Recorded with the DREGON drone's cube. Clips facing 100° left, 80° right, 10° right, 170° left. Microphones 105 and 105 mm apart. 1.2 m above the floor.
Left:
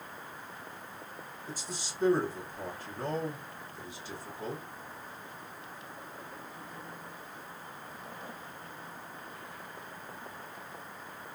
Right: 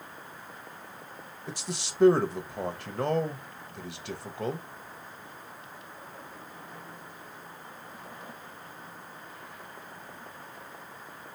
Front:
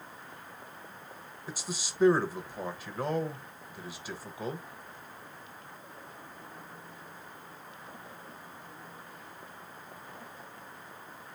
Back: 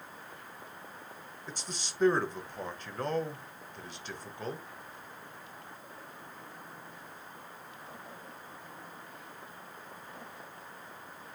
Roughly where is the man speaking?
Right.